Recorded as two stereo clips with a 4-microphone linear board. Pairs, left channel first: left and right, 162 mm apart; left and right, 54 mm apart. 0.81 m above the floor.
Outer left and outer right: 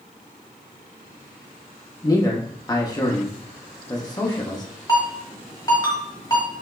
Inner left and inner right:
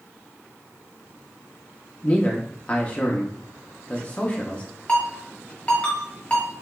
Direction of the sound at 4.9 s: 25° left (ahead or behind).